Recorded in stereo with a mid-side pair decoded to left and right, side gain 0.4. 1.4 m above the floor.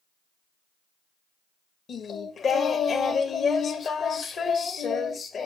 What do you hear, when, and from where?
1.9 s singing: 60° left, 1.3 m